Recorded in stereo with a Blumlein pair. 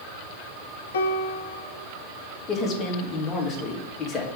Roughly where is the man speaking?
Ahead left.